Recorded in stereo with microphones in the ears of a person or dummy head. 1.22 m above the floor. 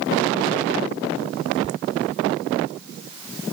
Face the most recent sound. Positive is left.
turn(degrees=-30)  # may be behind; listen again after turning